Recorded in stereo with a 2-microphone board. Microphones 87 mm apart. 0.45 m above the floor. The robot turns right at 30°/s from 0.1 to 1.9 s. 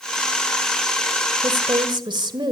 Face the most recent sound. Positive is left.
turn(degrees=-60)  # may be behind; listen again after turning